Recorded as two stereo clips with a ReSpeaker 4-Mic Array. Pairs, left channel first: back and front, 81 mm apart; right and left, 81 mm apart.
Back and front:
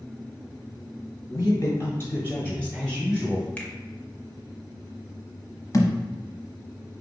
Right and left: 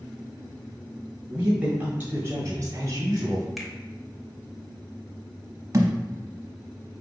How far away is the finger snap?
About 0.7 m.